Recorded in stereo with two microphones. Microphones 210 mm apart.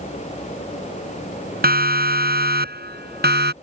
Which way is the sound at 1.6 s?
50° right (ahead or behind).